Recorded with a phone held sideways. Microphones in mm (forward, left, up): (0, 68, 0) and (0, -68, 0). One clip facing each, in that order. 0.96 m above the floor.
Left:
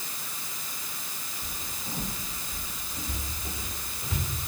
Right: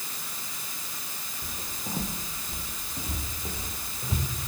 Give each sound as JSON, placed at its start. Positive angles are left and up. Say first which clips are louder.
{"t": 1.4, "sound": "footsteps", "louder": "right 3 dB", "side_deg": -45, "distance_m": 2.5}